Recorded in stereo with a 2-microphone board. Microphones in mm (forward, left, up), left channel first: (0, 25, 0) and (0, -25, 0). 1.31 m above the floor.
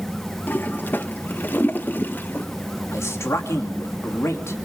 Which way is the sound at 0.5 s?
40° left (ahead or behind).